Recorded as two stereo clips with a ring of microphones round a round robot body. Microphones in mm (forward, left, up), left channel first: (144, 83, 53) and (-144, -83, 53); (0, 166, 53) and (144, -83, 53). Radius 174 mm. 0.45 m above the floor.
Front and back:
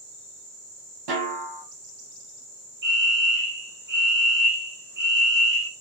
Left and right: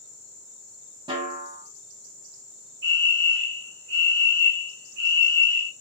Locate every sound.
1.1 s a snare drum: 140° right, 3 m
2.8 s a fire alarm: 100° right, 3 m